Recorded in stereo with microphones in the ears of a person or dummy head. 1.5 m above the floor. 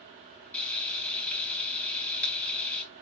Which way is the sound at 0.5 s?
10° left (ahead or behind).